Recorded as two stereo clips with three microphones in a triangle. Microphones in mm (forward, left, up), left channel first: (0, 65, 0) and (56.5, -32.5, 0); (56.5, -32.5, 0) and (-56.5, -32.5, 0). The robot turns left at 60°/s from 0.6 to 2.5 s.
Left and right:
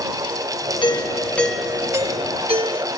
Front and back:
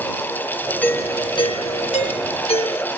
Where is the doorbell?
75° left; by 2.9 s 25° right.